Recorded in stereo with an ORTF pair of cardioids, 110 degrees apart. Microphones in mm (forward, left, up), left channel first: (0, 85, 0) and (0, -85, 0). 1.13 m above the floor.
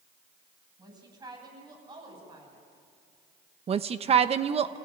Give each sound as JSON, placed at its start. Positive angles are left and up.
{"t": 0.8, "sound": "a woman speaking", "azimuth_deg": -25, "distance_m": 7.5}
{"t": 3.7, "sound": "a woman speaking", "azimuth_deg": -35, "distance_m": 1.0}